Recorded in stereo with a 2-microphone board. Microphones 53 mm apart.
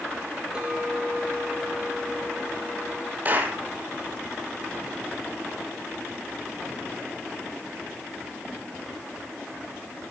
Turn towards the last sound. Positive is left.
turn(degrees=-35)  # may be behind; listen again after turning